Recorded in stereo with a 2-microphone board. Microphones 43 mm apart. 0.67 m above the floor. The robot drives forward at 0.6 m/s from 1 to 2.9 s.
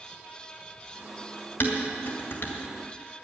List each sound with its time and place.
1.6 s dishes clattering: 50° left (ahead or behind), 2.5 m; by 2.5 s 60° left (ahead or behind), 2 m